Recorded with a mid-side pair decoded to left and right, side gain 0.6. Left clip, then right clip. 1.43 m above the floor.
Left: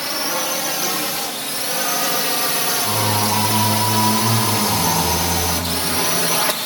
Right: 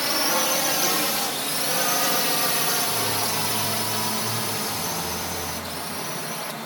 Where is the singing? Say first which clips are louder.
Left 6 dB; 60° left.